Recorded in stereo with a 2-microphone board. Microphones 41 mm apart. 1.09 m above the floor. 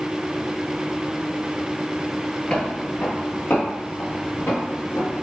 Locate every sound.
2.5 s footsteps: 25° left (ahead or behind), 1.2 m; by 5.2 s 70° left (ahead or behind), 3 m